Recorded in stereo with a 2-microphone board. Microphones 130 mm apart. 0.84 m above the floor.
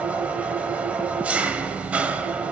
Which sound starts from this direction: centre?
An engine running, at 0.0 s.